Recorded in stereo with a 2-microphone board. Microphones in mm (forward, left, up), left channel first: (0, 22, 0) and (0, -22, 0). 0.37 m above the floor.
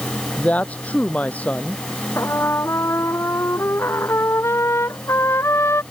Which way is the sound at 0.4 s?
35° left (ahead or behind).